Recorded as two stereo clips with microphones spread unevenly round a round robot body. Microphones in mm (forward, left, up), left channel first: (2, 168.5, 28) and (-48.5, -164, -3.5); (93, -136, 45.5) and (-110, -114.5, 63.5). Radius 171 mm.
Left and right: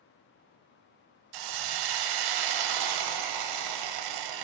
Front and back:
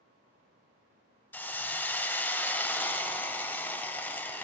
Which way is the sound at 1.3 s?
90° right.